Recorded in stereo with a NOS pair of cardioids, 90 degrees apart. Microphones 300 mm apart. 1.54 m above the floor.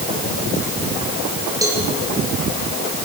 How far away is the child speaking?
No child speaking in this recording.